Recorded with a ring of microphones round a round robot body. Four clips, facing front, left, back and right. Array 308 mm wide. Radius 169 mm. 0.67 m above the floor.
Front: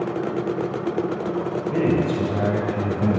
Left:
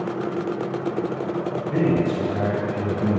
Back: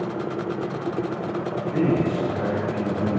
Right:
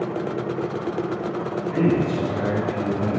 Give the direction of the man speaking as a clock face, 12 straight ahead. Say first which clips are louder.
Even, front 1 dB; 11 o'clock.